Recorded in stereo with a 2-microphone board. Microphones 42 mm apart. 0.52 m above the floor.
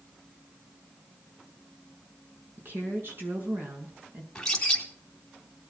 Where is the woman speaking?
55° right (ahead or behind), 6 m.